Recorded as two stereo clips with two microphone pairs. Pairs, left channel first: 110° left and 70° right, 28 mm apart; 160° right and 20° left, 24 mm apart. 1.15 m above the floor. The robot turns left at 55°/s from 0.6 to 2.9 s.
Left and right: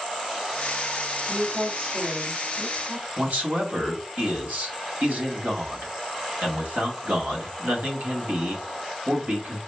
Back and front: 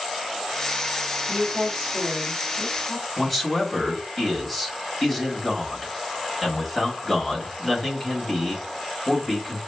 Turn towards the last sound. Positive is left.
turn(degrees=-80)